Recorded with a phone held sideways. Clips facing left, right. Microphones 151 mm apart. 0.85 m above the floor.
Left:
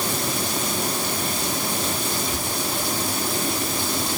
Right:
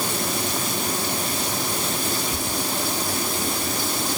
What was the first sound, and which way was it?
Only background noise.